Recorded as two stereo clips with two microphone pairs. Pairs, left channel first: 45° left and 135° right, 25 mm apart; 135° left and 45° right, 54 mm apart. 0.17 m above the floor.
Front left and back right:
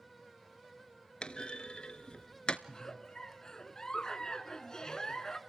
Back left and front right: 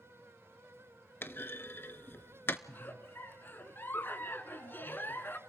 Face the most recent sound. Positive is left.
turn(degrees=95)